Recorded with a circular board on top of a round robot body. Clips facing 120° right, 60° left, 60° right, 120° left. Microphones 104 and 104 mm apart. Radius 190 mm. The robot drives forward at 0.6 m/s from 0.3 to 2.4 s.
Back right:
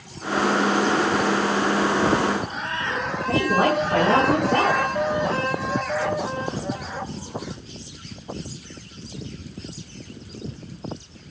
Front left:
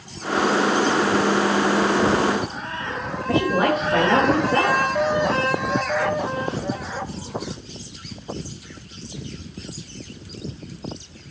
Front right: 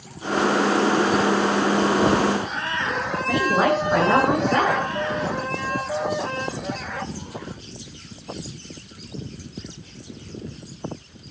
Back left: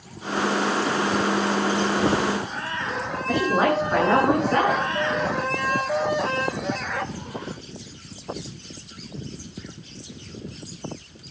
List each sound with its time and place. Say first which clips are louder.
3.3 s a woman speaking: front left 1 dB, front right 1 dB; 140° right, 9 m